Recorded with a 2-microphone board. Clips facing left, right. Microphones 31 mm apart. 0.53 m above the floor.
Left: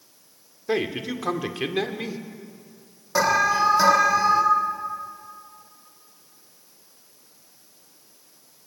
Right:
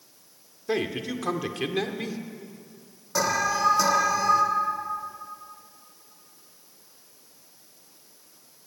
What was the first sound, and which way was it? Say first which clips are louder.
A man speaking: left 2 dB; 10° left (ahead or behind).